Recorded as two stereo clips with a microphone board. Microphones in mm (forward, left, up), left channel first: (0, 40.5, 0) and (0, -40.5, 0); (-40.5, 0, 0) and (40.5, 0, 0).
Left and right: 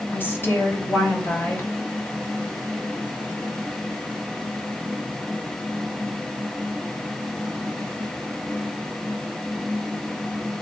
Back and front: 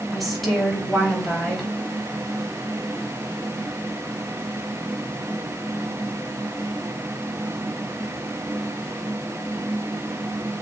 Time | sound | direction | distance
0.1 | a woman speaking | 90° left | 1.3 m